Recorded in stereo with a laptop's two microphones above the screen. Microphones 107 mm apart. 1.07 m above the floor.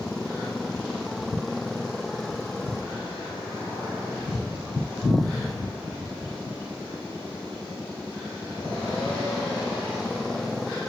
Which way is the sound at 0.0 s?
5° left (ahead or behind).